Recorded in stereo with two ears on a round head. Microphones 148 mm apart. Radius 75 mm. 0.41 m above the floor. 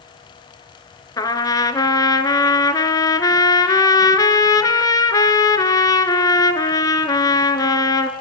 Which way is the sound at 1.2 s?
25° left (ahead or behind).